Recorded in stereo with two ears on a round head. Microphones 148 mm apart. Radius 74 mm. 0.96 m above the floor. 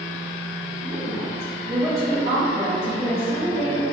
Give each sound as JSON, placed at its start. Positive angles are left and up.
{"t": 0.8, "sound": "a woman speaking", "side_deg": -40, "distance_m": 0.9}